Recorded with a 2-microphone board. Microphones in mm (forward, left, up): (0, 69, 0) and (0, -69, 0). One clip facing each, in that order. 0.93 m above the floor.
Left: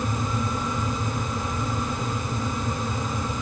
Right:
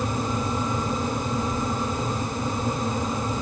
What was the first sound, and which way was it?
Only background noise.